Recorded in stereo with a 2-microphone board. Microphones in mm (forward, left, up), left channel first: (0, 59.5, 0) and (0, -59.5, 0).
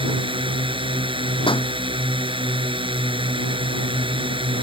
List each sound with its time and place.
0.0 s a drone: 45° right (ahead or behind)
1.5 s a pop: 45° left (ahead or behind)